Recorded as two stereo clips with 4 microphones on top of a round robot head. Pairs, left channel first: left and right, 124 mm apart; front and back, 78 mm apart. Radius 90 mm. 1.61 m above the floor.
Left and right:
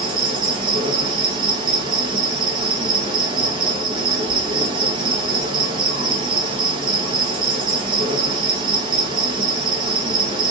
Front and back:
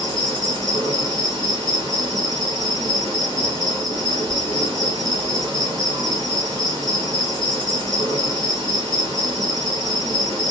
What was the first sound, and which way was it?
An insect, 125° right.